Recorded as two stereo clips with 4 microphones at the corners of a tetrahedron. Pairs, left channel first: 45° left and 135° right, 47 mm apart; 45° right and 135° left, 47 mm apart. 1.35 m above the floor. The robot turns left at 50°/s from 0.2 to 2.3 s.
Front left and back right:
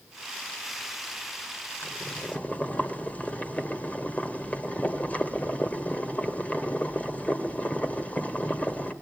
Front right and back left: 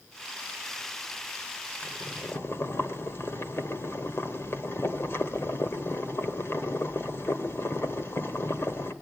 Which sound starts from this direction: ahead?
Boiling, at 1.8 s.